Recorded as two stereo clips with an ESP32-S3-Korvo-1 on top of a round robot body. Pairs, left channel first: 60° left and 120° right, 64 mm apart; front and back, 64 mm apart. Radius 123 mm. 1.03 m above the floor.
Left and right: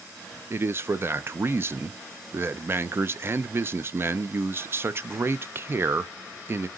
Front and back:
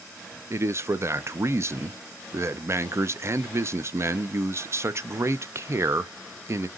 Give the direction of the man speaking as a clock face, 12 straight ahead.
5 o'clock.